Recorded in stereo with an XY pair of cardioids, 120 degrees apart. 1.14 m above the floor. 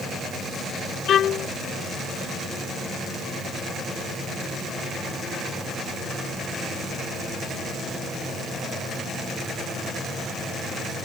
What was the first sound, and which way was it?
A violin, 50° left.